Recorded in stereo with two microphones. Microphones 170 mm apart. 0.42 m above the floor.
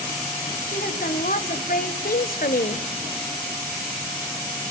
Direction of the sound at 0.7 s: 55° left (ahead or behind).